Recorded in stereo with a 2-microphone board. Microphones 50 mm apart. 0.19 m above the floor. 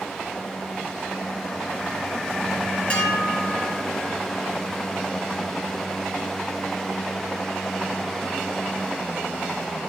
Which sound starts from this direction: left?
Dishes clattering, at 2.9 s.